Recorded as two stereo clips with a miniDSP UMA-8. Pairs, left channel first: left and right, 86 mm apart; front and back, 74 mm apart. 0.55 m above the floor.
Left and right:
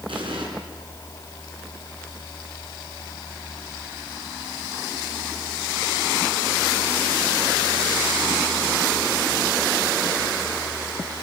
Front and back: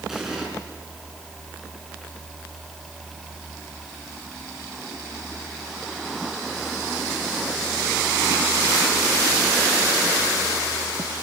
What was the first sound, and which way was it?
An explosion, 95° right.